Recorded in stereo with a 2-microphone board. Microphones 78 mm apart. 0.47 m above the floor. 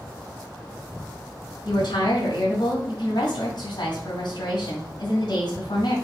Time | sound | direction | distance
1.6 | a woman speaking | 70° left (ahead or behind) | 2 m